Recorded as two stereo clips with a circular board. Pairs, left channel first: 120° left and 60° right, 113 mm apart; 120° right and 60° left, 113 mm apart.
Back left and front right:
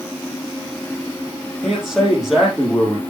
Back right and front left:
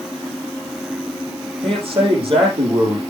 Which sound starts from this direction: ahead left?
A man speaking, at 1.6 s.